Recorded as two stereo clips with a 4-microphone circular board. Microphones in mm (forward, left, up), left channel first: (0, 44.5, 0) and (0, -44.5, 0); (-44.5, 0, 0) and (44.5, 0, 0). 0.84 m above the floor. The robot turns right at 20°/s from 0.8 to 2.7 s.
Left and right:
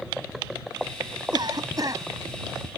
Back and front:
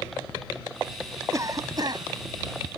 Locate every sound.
1.3 s a cough: 55° right; by 2.0 s 40° right